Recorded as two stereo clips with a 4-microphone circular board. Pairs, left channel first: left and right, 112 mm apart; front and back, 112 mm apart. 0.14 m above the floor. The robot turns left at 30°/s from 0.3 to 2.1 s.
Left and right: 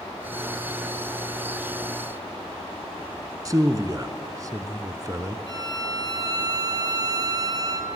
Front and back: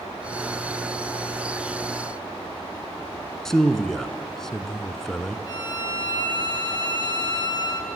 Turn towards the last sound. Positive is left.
turn(degrees=-40)